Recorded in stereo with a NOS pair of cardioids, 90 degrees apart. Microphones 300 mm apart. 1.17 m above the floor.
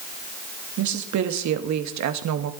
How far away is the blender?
No blender in this recording.